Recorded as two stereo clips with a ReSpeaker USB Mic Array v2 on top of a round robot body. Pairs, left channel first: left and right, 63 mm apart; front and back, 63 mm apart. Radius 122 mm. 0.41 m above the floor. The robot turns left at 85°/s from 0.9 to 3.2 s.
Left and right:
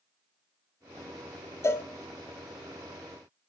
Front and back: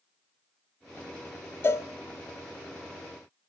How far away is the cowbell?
About 0.5 m.